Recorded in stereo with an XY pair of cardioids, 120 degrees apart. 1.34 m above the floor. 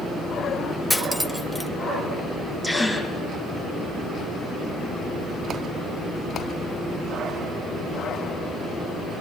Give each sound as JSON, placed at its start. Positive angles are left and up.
{"t": 0.9, "sound": "cutlery clinking", "azimuth_deg": 5, "distance_m": 1.3}
{"t": 2.6, "sound": "a gasp", "azimuth_deg": -5, "distance_m": 7.0}